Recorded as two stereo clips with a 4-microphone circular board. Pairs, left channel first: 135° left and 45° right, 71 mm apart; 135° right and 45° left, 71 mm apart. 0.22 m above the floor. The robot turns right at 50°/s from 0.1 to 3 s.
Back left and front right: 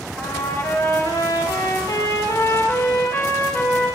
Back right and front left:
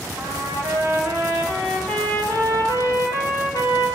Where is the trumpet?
60° left, 7 m; by 4.0 s 160° right, 7 m.